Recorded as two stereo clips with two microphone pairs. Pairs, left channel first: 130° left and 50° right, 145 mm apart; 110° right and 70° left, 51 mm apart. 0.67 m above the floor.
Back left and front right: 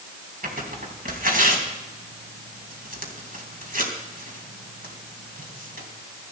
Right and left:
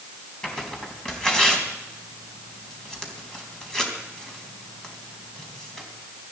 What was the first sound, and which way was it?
Tearing paper, 30° right.